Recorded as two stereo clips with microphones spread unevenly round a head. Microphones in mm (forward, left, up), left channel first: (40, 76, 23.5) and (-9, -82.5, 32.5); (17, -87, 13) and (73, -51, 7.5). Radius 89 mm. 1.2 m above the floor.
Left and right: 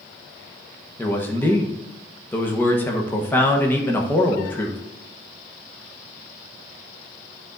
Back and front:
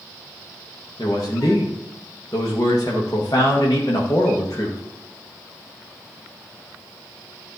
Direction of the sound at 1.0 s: 150° left.